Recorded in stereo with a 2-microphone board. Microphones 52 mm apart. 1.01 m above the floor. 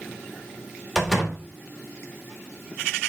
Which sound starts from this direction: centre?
A door slam, at 0.9 s.